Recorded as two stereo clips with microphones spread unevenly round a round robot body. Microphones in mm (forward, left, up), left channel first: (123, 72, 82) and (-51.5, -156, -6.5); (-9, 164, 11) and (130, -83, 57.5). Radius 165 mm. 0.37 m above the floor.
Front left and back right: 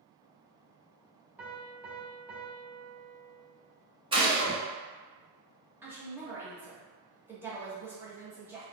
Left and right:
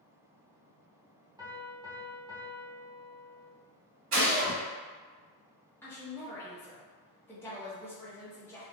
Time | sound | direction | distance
1.4 | a piano | 140° right | 0.7 m
4.1 | a gunshot | 90° right | 1.7 m
5.8 | a woman speaking | straight behind | 0.9 m